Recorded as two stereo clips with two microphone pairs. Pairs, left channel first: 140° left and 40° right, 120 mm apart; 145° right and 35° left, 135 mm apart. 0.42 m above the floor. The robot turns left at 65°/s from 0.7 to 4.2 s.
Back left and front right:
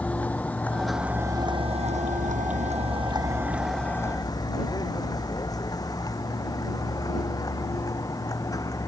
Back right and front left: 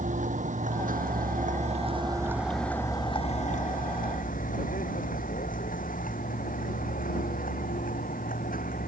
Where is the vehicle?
60° left; by 8.9 s 155° right.